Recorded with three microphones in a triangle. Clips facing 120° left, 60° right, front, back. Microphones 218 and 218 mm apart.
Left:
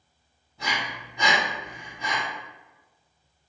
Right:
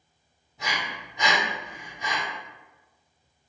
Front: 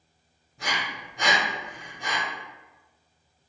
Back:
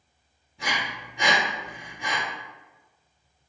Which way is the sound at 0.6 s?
Straight ahead.